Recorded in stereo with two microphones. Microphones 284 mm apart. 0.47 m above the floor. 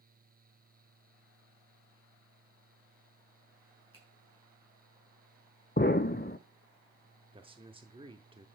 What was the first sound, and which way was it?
A finger snap, 50° right (ahead or behind).